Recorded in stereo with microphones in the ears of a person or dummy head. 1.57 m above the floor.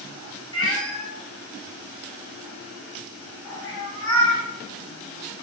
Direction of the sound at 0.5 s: 15° left (ahead or behind).